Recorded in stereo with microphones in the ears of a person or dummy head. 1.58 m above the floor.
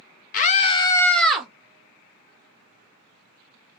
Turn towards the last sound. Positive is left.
turn(degrees=-5)  # may be behind; listen again after turning